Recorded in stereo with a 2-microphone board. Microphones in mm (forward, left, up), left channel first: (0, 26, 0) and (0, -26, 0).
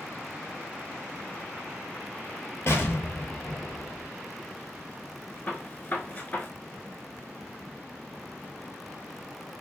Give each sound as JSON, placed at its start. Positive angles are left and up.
{"t": 2.7, "sound": "an explosion", "side_deg": 60, "distance_m": 0.7}
{"t": 5.5, "sound": "a gunshot", "side_deg": 35, "distance_m": 0.8}